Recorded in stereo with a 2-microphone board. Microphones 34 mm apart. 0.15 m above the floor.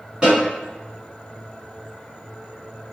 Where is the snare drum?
25° right (ahead or behind), 1.9 m.